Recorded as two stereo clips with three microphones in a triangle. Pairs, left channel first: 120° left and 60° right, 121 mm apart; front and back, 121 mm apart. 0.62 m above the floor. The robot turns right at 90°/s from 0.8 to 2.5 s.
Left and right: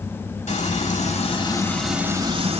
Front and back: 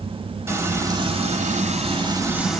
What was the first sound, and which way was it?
Frying, 110° left.